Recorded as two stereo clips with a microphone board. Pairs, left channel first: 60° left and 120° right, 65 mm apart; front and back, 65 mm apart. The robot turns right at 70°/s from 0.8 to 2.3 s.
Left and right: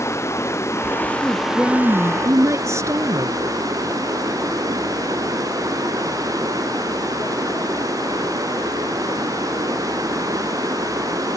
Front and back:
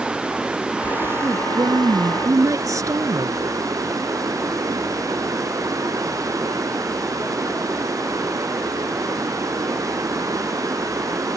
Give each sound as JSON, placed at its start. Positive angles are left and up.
{"t": 0.0, "sound": "running water", "azimuth_deg": 105}
{"t": 1.2, "sound": "a woman speaking", "azimuth_deg": 125}